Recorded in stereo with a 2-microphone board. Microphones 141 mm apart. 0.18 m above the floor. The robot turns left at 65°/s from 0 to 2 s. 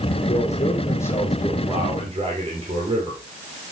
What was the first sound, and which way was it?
A man speaking, 70° left.